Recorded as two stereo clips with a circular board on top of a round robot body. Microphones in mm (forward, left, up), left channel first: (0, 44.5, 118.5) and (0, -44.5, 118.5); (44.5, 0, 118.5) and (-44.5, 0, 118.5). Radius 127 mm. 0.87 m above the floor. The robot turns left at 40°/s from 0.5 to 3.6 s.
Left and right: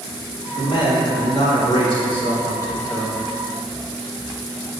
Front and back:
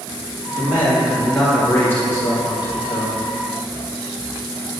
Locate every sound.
0.5 s a man speaking: 120° left, 2 m; by 3.2 s 15° left, 2 m